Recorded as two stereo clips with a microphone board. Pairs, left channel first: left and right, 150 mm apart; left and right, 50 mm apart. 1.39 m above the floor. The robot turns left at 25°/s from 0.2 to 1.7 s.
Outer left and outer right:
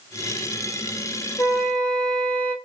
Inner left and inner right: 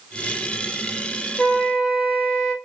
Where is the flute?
20° left (ahead or behind), 0.9 m; by 2.5 s 10° left (ahead or behind), 0.9 m.